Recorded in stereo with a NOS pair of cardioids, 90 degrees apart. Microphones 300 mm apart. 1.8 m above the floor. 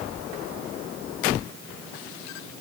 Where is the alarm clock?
I don't hear an alarm clock.